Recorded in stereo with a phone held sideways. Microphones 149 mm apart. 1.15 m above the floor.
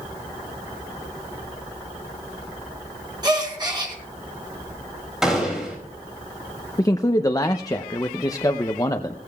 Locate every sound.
3.2 s a gasp: 30° right (ahead or behind), 2 m
5.2 s a gunshot: 5° right (ahead or behind), 5 m
6.8 s a man speaking: 25° left (ahead or behind), 0.5 m